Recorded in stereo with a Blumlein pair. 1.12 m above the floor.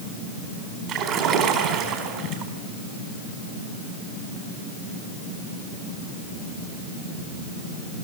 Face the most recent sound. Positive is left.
turn(degrees=-35)